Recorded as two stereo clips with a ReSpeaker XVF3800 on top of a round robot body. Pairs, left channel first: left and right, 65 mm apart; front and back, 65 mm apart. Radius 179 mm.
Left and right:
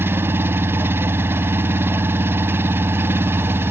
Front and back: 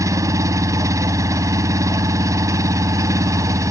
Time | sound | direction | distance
0.0 | an engine running | 145° right | ?